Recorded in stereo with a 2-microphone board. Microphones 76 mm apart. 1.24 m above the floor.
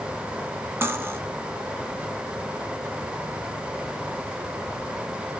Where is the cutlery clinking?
30° right (ahead or behind), 0.8 m.